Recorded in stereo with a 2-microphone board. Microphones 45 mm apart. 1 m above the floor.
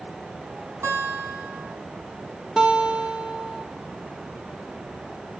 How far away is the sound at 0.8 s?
About 4.5 m.